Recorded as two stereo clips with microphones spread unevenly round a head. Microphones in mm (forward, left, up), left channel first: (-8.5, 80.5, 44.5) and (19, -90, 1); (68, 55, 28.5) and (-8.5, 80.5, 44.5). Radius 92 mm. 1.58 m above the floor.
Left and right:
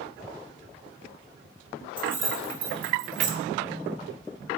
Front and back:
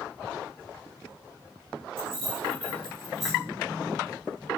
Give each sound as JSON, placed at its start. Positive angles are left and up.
{"t": 2.0, "sound": "keys jangling", "azimuth_deg": -170, "distance_m": 1.5}